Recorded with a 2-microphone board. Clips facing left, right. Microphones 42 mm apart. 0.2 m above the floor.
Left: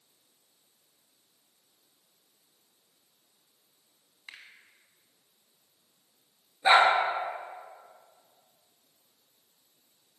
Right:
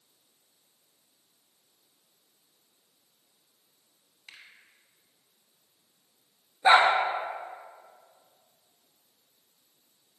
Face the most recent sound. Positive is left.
turn(degrees=-5)  # may be behind; listen again after turning